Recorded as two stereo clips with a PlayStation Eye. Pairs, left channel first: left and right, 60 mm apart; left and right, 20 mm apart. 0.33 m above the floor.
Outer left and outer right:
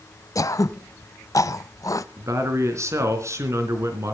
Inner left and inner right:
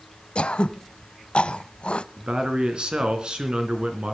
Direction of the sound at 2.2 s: 55° right (ahead or behind).